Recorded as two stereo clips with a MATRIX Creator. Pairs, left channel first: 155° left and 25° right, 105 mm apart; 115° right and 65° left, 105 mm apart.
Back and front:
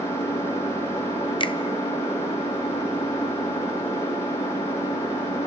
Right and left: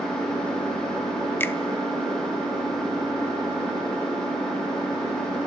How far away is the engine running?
About 10 m.